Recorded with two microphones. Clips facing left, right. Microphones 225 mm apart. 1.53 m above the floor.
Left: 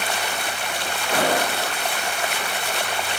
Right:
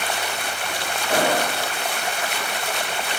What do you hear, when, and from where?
1.1 s an explosion: 40° right (ahead or behind), 3.5 m